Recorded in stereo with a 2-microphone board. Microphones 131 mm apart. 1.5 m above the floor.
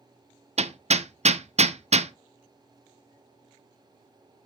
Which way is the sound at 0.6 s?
55° right (ahead or behind).